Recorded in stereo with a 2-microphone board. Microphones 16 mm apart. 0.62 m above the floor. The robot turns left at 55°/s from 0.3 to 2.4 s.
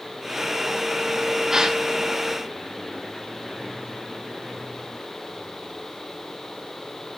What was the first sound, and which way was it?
A gasp, 30° right (ahead or behind).